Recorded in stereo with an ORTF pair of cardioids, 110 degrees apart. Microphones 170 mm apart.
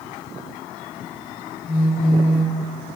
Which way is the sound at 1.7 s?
55° left.